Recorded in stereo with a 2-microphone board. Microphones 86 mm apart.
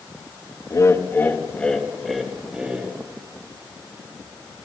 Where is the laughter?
40° left (ahead or behind), 2.0 m; by 2.9 s 15° right (ahead or behind), 3 m.